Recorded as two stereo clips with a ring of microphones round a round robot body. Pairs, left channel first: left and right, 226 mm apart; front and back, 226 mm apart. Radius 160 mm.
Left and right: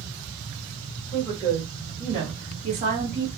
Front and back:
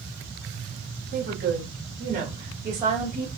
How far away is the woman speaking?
About 1.8 m.